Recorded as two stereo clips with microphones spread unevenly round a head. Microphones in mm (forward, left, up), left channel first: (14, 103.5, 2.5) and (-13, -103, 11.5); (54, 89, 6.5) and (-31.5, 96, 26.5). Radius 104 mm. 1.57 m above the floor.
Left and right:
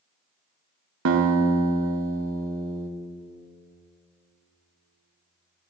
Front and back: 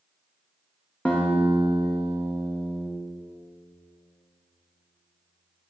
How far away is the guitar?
About 0.8 m.